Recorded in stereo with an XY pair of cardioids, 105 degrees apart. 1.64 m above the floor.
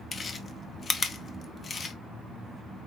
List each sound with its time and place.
0.1 s chewing: 45° left, 0.9 m